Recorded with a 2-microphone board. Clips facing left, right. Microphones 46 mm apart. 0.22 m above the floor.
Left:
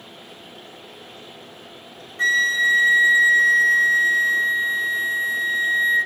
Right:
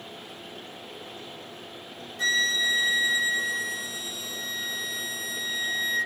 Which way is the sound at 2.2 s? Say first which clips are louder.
Left 7 dB; 40° left (ahead or behind).